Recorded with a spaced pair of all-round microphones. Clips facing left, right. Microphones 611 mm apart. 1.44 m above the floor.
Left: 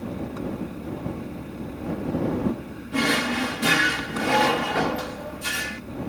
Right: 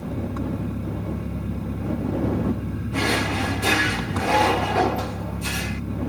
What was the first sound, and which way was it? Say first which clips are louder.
An engine running: right 2 dB; 70° right (ahead or behind).